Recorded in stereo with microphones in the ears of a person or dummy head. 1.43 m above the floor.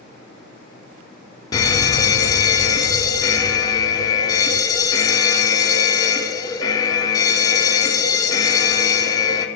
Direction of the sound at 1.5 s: 20° left (ahead or behind).